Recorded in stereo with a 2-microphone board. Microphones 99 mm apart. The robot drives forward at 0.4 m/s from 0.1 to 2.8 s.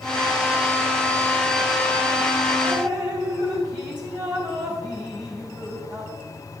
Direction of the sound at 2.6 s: 40° right (ahead or behind).